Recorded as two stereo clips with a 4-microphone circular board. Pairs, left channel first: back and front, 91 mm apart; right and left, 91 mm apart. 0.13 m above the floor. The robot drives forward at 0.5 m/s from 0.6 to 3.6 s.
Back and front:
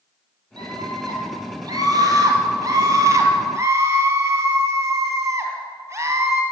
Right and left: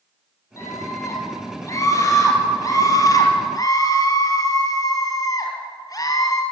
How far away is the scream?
About 4 m.